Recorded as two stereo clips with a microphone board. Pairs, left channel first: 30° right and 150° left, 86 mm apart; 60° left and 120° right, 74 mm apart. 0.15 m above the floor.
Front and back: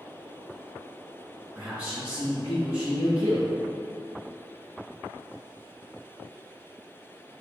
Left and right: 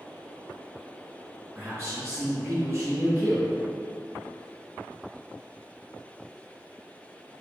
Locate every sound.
1.6 s a man speaking: 140° right, 1.7 m